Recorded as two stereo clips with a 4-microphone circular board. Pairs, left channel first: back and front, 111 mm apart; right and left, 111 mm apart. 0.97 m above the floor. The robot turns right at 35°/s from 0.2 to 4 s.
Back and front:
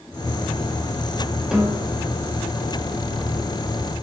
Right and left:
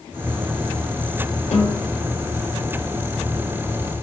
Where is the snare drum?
85° right, 1.0 m; by 1.8 s 75° right, 1.0 m.